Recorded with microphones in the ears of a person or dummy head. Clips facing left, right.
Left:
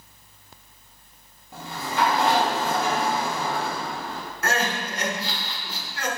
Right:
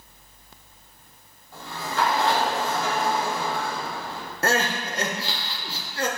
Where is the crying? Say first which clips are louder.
Right 2 dB; 30° right (ahead or behind), 0.7 m.